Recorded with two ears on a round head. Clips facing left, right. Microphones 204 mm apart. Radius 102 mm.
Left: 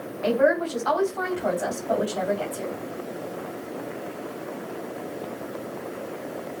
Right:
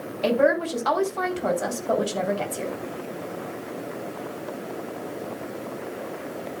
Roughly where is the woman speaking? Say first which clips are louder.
Even; right.